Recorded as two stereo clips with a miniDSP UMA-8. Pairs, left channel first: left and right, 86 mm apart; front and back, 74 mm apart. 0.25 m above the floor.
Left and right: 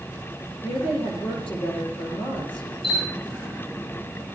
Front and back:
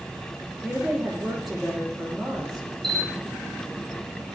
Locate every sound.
0.6 s a woman speaking: 95° left, 8 m
2.8 s a camera shutter: 85° left, 8.5 m